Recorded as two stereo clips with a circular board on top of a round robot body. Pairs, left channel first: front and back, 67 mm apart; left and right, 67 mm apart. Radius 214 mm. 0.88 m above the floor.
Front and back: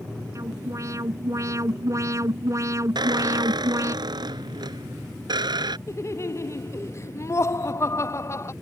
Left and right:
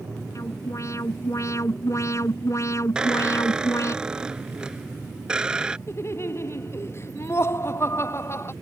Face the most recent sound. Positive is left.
turn(degrees=45)